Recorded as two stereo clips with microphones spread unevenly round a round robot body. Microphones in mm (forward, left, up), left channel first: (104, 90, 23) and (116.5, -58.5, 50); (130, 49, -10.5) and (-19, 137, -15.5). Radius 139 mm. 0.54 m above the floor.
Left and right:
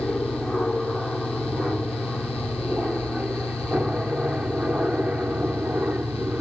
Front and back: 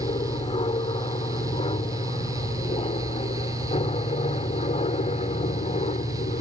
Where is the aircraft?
10° left; by 6.4 s 5° right.